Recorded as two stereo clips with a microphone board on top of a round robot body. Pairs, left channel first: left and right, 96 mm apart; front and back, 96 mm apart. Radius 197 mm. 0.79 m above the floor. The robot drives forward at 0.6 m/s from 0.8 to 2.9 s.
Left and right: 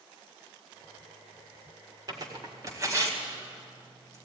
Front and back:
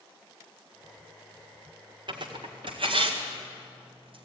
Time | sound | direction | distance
2.1 | tearing paper | 140° right | 1.6 m